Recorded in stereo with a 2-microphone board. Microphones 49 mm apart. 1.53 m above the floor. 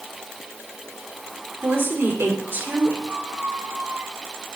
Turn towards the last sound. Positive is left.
turn(degrees=-45)  # may be behind; listen again after turning